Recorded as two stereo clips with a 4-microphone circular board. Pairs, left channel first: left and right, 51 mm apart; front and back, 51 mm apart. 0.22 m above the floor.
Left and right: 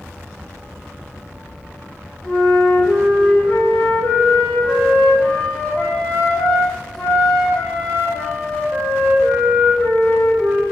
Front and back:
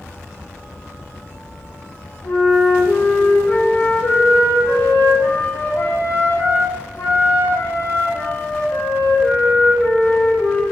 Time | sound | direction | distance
2.2 | a flute | 5° left | 6.5 m